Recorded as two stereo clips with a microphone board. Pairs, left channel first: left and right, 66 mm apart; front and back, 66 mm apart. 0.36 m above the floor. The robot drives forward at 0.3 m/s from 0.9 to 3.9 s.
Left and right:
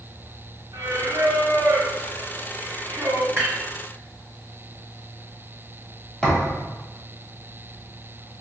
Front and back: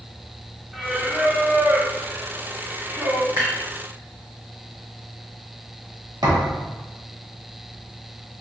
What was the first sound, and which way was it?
Singing, 95° right.